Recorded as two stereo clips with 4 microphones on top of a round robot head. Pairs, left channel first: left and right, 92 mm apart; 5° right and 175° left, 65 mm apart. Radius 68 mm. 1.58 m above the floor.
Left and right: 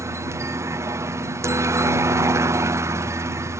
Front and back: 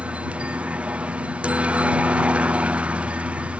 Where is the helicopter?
125° right.